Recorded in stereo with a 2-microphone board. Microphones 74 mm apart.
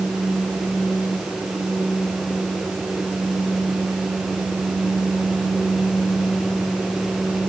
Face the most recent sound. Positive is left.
No sound to turn to.